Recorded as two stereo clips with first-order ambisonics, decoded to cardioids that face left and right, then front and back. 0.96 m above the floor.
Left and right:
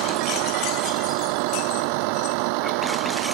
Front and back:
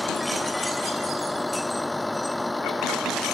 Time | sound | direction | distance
0.0 | a vehicle | 85° right | ?